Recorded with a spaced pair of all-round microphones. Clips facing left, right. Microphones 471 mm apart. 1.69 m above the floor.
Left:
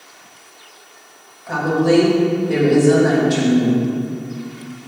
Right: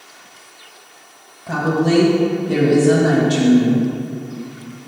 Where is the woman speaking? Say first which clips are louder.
Left 1 dB; 50° right (ahead or behind), 2.5 m.